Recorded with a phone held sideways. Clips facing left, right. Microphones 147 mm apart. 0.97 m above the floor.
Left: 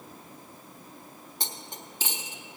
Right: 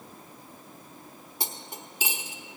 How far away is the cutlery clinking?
About 0.8 m.